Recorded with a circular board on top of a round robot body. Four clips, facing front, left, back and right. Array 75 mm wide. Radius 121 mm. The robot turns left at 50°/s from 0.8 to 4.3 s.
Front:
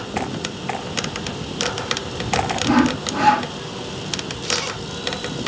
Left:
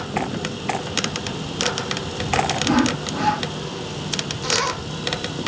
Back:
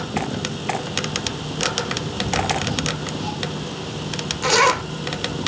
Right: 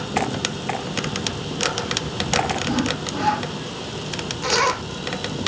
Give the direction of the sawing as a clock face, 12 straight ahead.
11 o'clock.